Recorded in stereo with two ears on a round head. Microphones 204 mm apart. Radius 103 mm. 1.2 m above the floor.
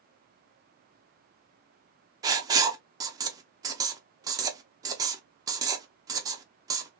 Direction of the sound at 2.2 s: 15° right (ahead or behind).